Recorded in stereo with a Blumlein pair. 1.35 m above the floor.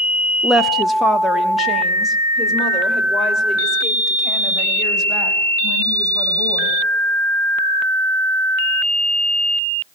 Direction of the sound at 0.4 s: Straight ahead.